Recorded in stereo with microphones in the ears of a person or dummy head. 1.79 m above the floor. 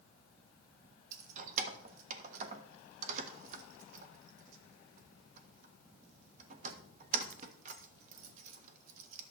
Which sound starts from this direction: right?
Keys jangling, at 1.1 s.